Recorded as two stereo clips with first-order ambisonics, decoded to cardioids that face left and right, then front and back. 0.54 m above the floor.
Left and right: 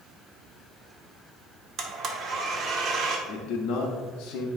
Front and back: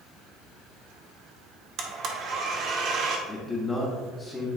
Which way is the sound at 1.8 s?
140° right.